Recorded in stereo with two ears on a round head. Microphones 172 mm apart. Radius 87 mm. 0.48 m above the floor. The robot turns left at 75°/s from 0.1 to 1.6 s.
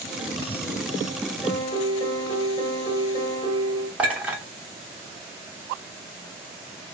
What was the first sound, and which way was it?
A piano, 10° left (ahead or behind).